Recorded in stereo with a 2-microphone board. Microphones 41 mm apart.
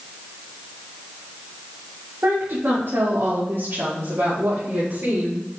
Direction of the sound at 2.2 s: 55° right (ahead or behind).